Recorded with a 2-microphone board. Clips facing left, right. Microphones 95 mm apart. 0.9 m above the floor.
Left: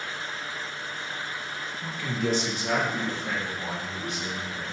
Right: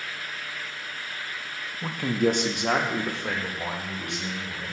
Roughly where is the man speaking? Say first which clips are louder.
Right 6 dB; right.